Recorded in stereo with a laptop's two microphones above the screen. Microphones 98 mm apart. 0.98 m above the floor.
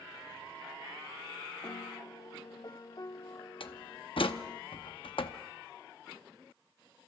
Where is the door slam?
65° left (ahead or behind), 0.8 m.